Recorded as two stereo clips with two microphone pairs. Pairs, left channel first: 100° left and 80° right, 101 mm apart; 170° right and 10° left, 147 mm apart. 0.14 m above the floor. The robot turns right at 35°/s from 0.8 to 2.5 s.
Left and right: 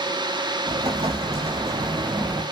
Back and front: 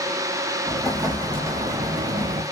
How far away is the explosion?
About 1.0 m.